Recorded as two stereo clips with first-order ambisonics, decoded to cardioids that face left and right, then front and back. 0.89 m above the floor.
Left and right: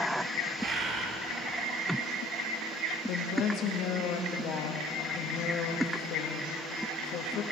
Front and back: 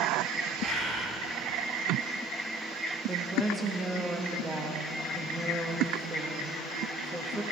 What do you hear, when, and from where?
0.6 s a bird: 115° right, 3 m
3.1 s a woman speaking: 100° left, 1.1 m